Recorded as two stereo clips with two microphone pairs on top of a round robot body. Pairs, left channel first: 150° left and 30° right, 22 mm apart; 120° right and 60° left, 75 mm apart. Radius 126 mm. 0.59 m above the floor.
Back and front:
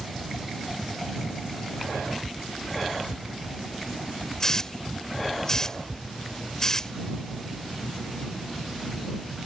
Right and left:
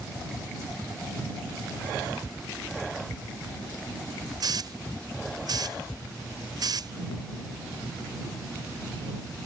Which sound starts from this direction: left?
A hiss, at 4.4 s.